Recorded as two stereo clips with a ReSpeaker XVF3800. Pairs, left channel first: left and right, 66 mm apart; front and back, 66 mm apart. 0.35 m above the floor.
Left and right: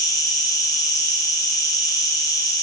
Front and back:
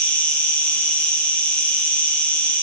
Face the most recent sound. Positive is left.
turn(degrees=70)